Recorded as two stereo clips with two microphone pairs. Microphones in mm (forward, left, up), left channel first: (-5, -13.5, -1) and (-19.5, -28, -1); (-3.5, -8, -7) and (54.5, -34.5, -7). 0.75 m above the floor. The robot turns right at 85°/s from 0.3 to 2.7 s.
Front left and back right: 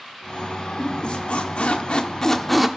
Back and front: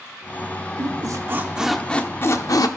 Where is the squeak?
20° right, 0.7 m; by 2.7 s 140° left, 0.7 m.